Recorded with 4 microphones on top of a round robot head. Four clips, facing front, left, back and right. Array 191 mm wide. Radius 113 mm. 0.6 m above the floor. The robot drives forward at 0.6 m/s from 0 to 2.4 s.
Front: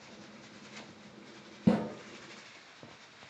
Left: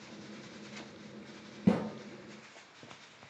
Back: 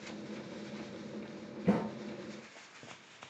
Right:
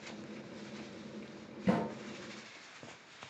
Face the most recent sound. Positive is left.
turn(degrees=40)